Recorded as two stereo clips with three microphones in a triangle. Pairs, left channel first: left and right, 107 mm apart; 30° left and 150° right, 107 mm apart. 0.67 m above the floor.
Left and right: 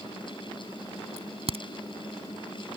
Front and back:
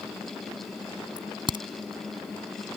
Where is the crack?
110° right.